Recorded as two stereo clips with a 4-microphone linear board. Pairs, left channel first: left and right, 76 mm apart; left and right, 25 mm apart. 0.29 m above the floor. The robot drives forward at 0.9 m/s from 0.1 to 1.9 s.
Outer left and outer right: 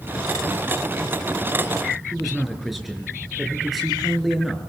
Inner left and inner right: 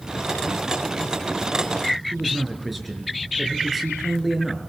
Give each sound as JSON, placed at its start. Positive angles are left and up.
{"t": 2.1, "sound": "a man speaking", "side_deg": 0, "distance_m": 4.5}